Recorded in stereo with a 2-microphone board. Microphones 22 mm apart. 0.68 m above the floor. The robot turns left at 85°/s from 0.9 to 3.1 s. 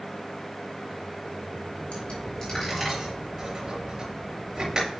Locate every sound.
1.9 s a dropped coin: 60° left (ahead or behind), 6 m; by 5.0 s 45° right (ahead or behind), 6 m